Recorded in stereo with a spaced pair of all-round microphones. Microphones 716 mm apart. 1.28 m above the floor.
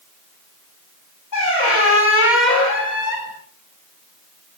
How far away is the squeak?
About 2.5 m.